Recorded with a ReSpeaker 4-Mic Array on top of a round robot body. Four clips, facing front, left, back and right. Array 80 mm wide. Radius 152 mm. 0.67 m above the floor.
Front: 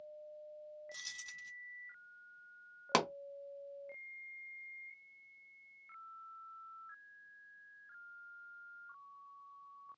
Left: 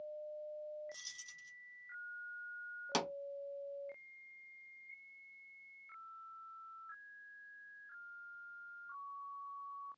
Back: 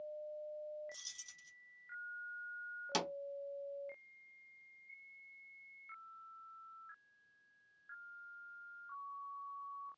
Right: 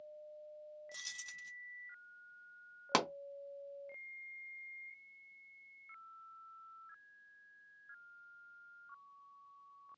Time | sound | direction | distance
0.9 | keys jangling | 55° right | 0.7 m
2.9 | a pop | 40° right | 0.6 m